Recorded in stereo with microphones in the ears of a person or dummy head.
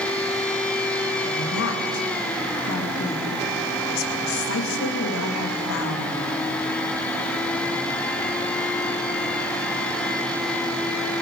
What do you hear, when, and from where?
1.2 s a woman speaking: 80° left, 2 m